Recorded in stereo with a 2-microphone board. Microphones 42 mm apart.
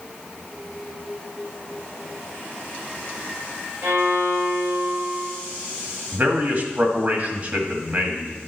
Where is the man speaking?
50° right (ahead or behind), 1.9 m.